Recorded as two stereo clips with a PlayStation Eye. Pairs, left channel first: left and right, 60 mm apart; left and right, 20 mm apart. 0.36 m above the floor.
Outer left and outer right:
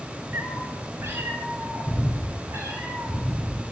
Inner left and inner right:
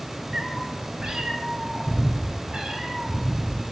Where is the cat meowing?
40° right (ahead or behind), 2 m; by 3.6 s 55° right (ahead or behind), 5.5 m.